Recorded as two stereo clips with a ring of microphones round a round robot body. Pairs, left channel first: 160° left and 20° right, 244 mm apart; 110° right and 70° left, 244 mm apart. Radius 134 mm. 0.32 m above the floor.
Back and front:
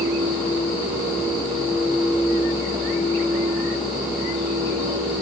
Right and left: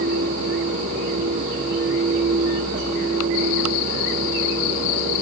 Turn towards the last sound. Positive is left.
No sound to turn to.